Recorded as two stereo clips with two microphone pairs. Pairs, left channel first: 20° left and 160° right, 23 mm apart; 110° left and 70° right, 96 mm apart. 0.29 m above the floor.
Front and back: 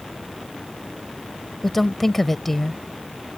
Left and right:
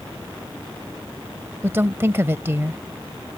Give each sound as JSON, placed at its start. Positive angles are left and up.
{"t": 1.6, "sound": "a woman speaking", "azimuth_deg": -45}